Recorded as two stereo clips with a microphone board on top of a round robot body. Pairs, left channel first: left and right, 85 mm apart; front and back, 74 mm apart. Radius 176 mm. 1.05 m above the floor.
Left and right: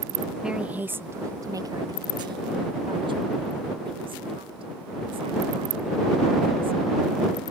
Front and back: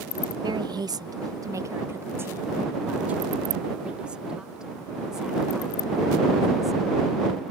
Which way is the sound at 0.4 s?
170° right.